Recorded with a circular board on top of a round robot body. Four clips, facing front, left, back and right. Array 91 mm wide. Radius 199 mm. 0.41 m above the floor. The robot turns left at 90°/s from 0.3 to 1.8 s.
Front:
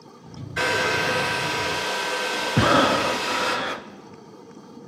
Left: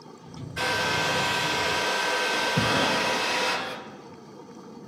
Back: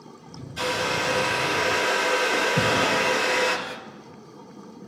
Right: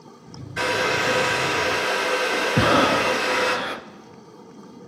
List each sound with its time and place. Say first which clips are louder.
0.6 s a hair dryer: right 4 dB, front 3 dB; 20° right, 2 m; by 3.6 s 130° right, 2 m
2.6 s breathing: right 9 dB, front 9 dB; 40° right, 0.6 m